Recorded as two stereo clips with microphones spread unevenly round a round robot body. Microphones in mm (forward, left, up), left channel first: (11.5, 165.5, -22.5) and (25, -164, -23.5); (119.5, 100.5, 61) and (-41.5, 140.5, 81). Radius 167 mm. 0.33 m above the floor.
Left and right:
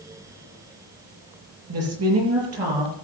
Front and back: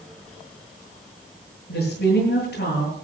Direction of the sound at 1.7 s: 40° right.